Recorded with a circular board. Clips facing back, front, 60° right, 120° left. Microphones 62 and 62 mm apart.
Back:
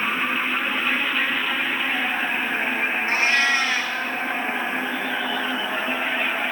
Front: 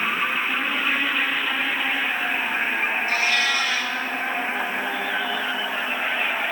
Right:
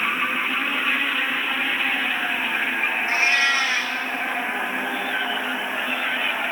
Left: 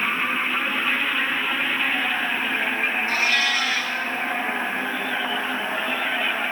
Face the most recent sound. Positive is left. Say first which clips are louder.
# back 4 dB, right 4 dB
turn(degrees=-125)